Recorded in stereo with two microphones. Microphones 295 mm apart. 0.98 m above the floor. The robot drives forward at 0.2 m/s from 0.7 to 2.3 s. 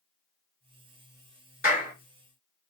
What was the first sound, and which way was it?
A clap, 35° left (ahead or behind).